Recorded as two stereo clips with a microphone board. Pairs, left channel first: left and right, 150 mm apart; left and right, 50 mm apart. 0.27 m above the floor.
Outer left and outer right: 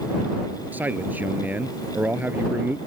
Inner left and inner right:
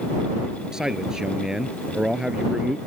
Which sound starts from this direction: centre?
A man speaking, at 0.7 s.